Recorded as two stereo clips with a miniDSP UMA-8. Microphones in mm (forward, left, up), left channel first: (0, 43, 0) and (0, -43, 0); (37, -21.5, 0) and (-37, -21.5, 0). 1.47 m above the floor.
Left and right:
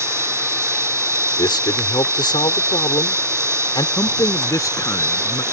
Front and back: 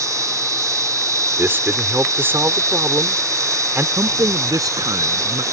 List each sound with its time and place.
0.0 s an insect: 145° right
1.4 s a man speaking: 120° left
4.0 s a man speaking: 140° left